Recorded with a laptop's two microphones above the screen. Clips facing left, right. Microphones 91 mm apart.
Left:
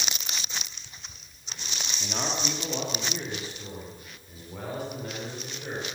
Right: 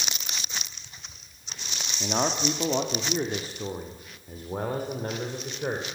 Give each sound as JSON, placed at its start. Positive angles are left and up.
{"t": 2.0, "sound": "a man speaking", "side_deg": -35, "distance_m": 1.7}